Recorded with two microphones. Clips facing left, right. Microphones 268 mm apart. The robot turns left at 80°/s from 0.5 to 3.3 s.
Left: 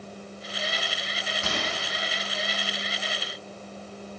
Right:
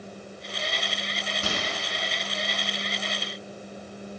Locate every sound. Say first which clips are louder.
1.4 s a microwave: even; 35° right (ahead or behind), 2 m; by 1.7 s 15° right (ahead or behind), 2 m